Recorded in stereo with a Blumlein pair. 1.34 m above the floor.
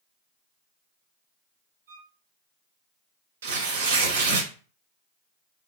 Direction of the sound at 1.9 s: 60° right.